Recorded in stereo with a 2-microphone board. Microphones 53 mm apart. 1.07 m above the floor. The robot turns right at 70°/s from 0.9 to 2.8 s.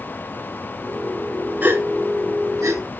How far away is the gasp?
About 3 m.